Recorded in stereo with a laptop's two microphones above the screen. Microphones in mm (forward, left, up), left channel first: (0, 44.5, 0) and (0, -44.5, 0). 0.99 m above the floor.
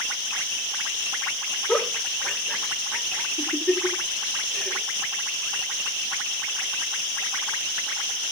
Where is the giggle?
10° left (ahead or behind), 2 m.